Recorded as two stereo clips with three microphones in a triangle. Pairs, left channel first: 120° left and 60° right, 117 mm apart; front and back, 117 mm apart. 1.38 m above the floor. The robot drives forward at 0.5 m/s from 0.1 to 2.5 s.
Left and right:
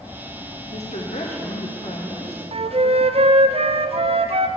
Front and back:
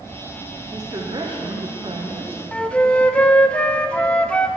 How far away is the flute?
About 0.5 m.